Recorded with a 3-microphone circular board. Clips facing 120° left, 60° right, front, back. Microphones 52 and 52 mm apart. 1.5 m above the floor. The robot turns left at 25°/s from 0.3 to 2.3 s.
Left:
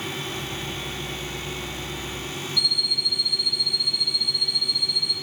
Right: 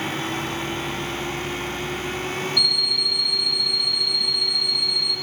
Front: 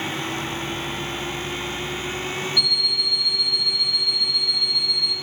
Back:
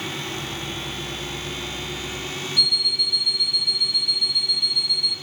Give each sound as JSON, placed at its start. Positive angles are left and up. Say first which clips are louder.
{"t": 2.6, "sound": "an alarm clock", "louder": "right 3 dB, back 3 dB", "azimuth_deg": -160, "distance_m": 0.6}